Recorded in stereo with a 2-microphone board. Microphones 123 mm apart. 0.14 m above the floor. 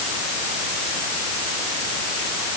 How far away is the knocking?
I don't hear knocking.